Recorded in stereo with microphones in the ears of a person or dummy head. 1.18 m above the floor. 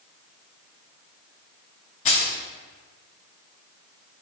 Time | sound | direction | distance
2.0 | keys jangling | 30° left (ahead or behind) | 0.6 m